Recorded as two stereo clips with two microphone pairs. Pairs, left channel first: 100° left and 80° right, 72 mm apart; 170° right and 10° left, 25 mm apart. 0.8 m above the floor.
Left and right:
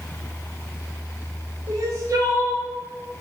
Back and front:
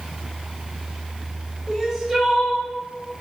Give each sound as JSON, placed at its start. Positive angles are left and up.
{"t": 1.7, "sound": "crying", "azimuth_deg": -55, "distance_m": 1.1}